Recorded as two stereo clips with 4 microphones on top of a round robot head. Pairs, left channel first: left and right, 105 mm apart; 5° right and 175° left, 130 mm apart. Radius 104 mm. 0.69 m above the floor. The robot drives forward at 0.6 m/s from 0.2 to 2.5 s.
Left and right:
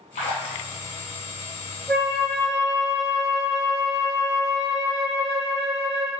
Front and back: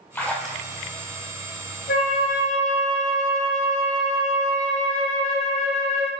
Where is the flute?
Straight ahead, 0.8 m; by 6.1 s 5° left, 0.5 m.